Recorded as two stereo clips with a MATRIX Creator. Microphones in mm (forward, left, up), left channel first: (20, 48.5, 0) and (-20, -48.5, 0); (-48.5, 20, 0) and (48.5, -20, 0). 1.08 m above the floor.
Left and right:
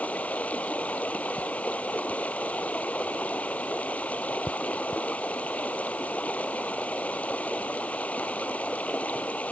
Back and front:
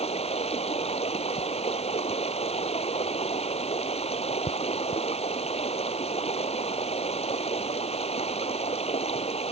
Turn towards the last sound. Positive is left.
turn(degrees=145)